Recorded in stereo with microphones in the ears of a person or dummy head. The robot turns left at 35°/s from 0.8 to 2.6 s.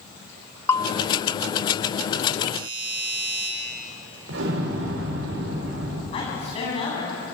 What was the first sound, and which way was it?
A bell, 20° left (ahead or behind).